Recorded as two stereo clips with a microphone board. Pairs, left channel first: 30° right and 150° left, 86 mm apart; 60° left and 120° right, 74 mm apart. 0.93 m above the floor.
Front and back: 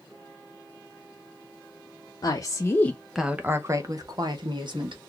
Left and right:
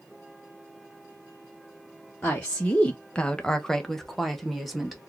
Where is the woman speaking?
10° right, 0.9 m; by 5.0 s 155° left, 1.5 m.